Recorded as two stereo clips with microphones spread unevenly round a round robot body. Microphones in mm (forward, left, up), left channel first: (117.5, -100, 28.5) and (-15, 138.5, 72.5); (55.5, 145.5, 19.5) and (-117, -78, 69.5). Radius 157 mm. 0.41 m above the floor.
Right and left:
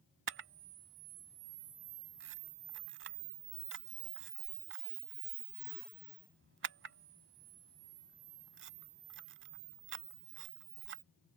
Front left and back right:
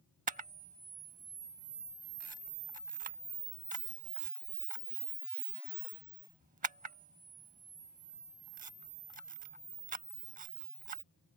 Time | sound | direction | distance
0.3 | a camera shutter | 170° left | ?